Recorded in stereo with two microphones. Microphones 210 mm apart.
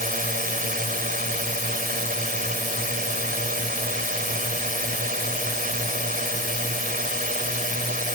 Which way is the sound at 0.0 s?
45° right (ahead or behind).